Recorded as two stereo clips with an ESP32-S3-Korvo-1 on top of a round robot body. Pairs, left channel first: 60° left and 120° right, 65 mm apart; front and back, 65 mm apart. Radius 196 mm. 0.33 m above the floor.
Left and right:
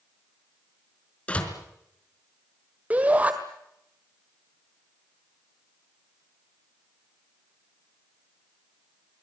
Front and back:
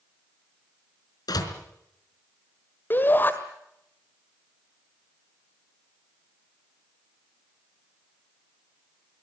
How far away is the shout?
About 1.9 m.